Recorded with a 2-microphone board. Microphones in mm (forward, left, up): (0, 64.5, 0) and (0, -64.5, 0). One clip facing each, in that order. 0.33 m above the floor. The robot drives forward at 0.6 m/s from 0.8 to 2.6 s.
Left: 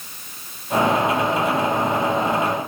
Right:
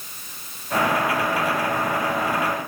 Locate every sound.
Only background noise.